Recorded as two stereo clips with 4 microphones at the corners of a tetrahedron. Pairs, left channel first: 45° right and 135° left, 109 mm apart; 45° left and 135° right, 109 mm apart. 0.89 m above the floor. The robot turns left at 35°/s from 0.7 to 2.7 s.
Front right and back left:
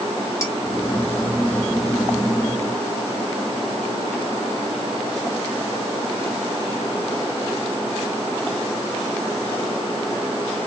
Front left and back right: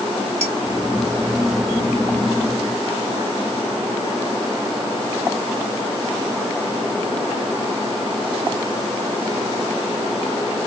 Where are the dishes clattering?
110° right, 1.2 m.